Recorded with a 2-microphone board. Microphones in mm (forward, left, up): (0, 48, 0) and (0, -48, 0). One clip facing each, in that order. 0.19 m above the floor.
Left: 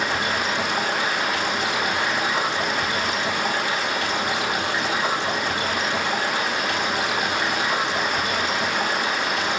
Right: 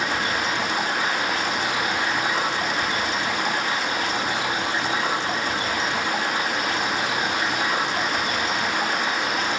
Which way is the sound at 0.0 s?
70° left (ahead or behind).